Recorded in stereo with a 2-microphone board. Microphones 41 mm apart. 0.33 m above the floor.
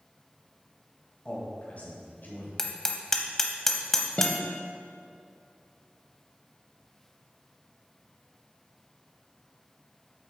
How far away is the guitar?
About 0.7 m.